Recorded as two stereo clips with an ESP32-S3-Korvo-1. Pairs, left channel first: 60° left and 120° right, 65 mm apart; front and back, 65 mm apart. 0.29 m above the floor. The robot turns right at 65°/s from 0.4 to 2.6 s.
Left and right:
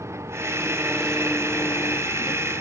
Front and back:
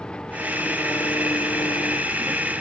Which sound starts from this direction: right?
An engine running, at 0.0 s.